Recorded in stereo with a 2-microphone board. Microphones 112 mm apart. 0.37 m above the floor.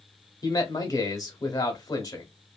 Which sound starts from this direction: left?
A man speaking, at 0.4 s.